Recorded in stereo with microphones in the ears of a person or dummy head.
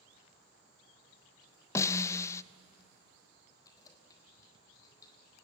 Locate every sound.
1.8 s a snare drum: 20° left (ahead or behind), 0.5 m
3.6 s keys jangling: 20° left (ahead or behind), 3.5 m